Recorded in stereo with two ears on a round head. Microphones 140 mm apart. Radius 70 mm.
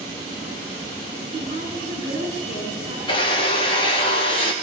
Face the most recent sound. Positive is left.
turn(degrees=35)  # may be behind; listen again after turning